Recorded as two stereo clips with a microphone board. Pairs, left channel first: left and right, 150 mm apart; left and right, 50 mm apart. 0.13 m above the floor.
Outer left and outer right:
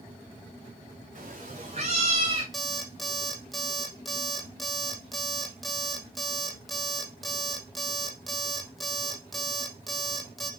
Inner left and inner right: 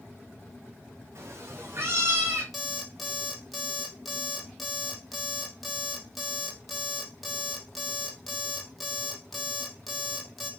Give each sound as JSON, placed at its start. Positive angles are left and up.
{"t": 1.1, "sound": "a cat meowing", "side_deg": -60, "distance_m": 3.5}
{"t": 2.5, "sound": "an alarm clock", "side_deg": 0, "distance_m": 2.5}